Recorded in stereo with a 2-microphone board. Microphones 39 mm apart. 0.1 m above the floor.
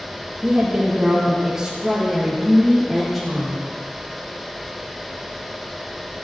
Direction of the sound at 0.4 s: 25° right (ahead or behind).